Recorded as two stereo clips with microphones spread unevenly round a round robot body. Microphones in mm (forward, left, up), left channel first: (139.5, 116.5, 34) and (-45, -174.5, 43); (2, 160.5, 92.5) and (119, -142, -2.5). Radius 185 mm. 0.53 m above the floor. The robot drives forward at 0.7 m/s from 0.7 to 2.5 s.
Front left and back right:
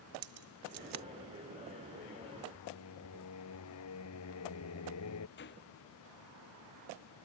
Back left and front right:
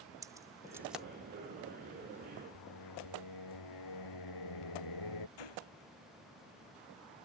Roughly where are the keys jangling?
Behind right.